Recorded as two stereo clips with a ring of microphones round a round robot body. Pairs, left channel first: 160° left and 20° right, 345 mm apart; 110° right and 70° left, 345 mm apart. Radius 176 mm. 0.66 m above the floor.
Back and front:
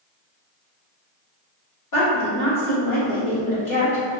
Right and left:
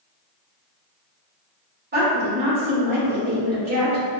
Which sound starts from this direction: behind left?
A woman speaking, at 1.9 s.